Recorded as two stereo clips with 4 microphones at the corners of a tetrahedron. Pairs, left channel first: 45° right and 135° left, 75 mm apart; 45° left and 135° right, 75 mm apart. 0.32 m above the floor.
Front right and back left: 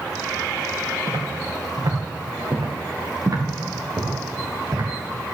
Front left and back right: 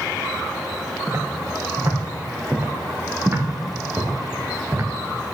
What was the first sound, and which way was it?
Footsteps, 175° left.